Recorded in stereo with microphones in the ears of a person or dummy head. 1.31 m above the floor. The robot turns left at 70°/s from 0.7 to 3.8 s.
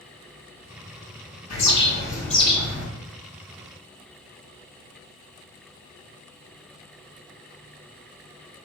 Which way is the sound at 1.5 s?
100° left.